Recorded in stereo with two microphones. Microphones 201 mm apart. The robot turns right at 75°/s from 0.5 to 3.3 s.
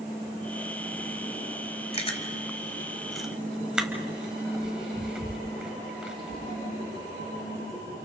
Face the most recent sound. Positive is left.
turn(degrees=-5)  # may be behind; listen again after turning